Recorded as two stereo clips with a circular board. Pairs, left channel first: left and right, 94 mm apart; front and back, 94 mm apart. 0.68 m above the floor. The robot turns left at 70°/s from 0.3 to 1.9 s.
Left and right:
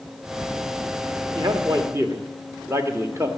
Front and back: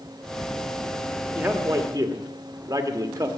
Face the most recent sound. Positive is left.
turn(degrees=-140)